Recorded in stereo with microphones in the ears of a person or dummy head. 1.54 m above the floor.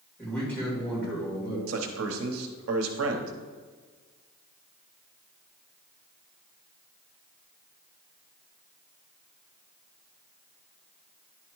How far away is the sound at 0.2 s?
About 2.5 m.